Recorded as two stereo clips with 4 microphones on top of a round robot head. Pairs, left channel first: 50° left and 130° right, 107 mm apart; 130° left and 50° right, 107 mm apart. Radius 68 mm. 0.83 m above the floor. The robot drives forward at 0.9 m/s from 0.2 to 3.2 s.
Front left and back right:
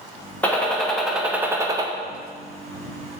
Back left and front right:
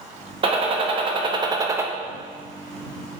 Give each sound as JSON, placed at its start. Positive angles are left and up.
{"t": 0.4, "sound": "a gunshot", "azimuth_deg": -25, "distance_m": 1.4}